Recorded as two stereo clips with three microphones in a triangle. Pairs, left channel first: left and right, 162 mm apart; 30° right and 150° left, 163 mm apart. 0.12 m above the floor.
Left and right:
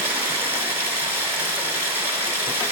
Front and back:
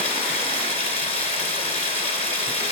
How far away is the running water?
About 1.2 m.